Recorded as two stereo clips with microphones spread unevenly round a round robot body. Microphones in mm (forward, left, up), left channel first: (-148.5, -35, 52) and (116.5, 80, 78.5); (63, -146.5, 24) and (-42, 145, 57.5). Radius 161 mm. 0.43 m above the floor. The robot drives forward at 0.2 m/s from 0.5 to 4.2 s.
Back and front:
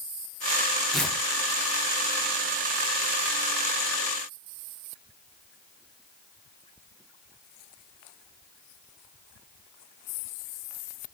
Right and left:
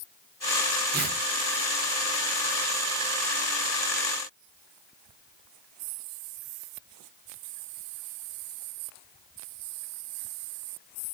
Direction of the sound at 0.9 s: 125° left.